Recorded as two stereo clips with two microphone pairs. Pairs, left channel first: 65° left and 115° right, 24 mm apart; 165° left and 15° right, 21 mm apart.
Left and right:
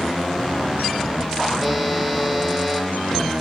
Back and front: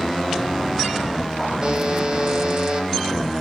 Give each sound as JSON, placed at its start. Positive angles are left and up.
{"t": 1.6, "sound": "a buzzer", "azimuth_deg": -50, "distance_m": 1.5}